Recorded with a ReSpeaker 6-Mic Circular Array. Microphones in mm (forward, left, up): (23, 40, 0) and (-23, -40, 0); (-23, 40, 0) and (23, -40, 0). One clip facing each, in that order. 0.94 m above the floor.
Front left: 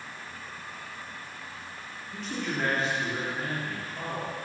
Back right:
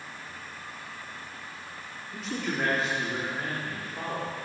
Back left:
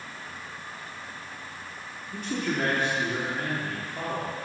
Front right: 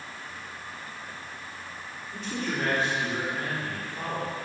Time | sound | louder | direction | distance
2.1 | a man speaking | back right 1 dB, back left 2 dB | 150° left | 2.5 m